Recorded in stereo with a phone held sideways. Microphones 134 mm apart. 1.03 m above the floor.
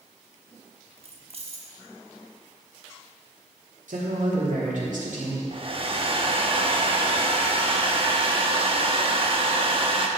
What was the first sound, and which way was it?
Keys jangling, 50° right (ahead or behind).